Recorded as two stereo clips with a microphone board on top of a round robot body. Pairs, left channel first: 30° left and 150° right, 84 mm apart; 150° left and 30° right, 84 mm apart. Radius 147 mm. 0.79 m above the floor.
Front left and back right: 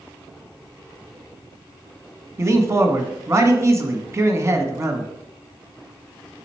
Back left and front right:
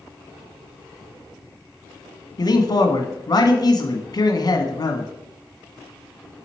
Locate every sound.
2.4 s a man speaking: 160° left, 1.2 m